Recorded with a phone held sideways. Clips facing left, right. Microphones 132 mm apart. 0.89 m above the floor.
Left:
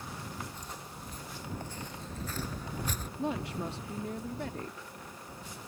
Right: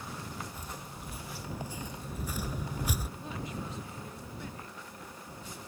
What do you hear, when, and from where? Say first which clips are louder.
0.5 s footsteps: right 1 dB; 10° right (ahead or behind)
3.2 s a woman speaking: left 6 dB; 75° left (ahead or behind)